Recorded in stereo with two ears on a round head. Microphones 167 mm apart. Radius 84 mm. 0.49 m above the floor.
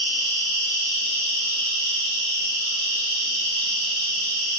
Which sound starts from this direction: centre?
An insect, at 0.0 s.